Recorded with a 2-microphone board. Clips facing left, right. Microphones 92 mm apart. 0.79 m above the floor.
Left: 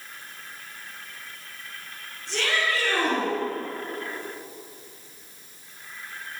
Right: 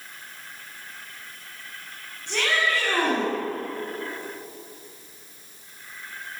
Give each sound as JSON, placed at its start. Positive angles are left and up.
{"t": 2.3, "sound": "a shout", "side_deg": -75, "distance_m": 8.0}